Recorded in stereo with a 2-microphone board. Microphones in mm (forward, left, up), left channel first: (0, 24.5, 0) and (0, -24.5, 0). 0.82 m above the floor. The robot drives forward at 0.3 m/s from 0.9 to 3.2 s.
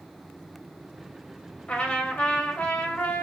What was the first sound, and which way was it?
A trumpet, 20° left (ahead or behind).